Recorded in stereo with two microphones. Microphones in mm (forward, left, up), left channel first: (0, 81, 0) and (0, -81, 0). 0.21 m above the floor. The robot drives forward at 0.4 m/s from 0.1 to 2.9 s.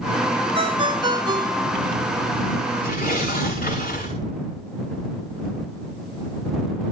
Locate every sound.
0.6 s a ringtone: 35° right (ahead or behind), 1.0 m; by 1.9 s 25° right (ahead or behind), 1.4 m
2.8 s tearing paper: 60° left (ahead or behind), 9.5 m